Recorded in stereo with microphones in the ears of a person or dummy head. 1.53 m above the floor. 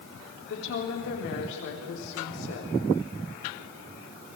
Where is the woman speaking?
70° left (ahead or behind), 3.5 m.